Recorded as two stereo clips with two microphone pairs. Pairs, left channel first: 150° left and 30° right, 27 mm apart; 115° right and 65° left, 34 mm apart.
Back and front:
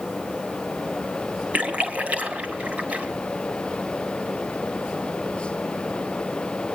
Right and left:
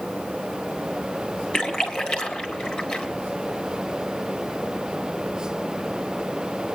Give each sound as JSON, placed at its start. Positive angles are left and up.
{"t": 1.5, "sound": "a splash", "azimuth_deg": -50, "distance_m": 2.5}